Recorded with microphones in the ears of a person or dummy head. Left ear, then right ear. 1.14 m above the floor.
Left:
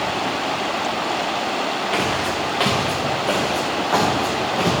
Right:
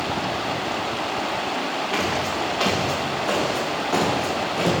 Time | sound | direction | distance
1.9 | footsteps | 15° left (ahead or behind) | 2.5 m